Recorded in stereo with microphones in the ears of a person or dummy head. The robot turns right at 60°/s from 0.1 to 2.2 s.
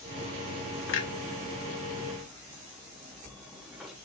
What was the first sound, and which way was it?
A clunk, 60° left (ahead or behind).